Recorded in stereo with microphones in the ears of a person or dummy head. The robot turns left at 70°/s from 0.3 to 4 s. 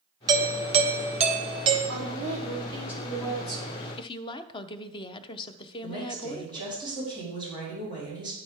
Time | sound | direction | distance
0.3 | a doorbell | 35° right | 0.9 m
1.9 | a woman speaking | 105° right | 3 m
4.0 | a woman speaking | 30° left (ahead or behind) | 0.6 m
5.8 | a woman speaking | 40° left (ahead or behind) | 4.5 m